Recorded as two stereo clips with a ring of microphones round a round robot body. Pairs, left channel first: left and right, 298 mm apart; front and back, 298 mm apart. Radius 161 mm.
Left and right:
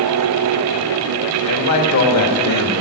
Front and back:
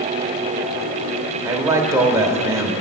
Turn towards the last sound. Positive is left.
turn(degrees=100)